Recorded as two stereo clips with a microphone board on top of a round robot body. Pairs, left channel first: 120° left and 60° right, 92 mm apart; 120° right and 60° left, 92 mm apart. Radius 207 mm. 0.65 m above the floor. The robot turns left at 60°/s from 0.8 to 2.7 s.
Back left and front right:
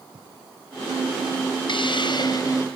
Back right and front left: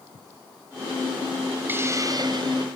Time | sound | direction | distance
1.7 | a hiss | 125° left | 2.5 m